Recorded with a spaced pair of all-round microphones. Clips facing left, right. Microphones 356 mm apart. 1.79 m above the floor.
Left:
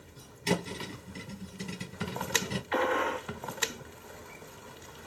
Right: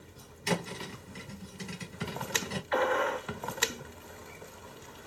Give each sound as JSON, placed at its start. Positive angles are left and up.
{"t": 0.5, "sound": "a thud", "side_deg": 45, "distance_m": 2.5}
{"t": 2.7, "sound": "a gunshot", "side_deg": 40, "distance_m": 1.1}